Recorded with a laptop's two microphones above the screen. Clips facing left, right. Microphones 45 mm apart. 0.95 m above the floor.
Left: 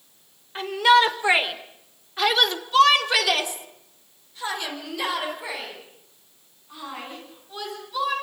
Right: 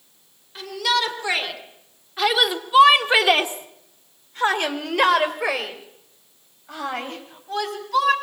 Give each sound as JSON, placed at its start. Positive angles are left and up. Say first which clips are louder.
{"t": 0.6, "sound": "a shout", "louder": "left 6 dB", "side_deg": 35, "distance_m": 4.5}